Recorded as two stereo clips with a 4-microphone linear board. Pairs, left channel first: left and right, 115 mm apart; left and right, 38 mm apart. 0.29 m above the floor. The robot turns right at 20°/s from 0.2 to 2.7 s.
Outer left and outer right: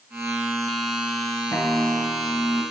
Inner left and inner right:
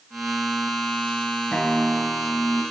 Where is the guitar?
25° left (ahead or behind), 1.9 m; by 2.6 s 45° left (ahead or behind), 1.9 m.